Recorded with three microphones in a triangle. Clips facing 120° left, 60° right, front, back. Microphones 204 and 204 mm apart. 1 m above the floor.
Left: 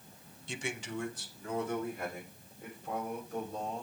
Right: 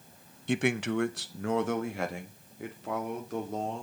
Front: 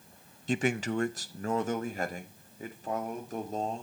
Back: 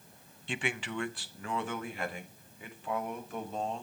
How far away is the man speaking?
About 0.5 m.